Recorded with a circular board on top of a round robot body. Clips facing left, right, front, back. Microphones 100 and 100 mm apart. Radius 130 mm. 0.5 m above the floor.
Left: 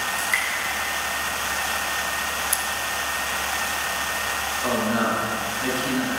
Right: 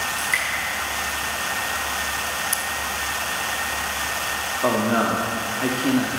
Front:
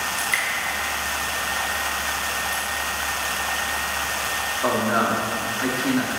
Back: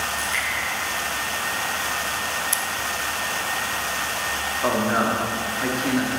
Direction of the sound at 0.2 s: Straight ahead.